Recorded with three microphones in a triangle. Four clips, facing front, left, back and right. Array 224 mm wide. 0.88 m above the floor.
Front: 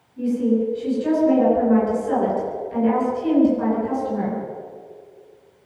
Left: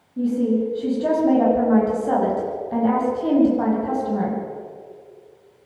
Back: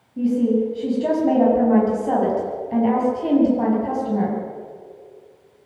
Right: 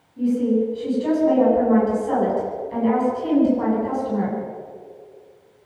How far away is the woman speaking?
About 8.5 m.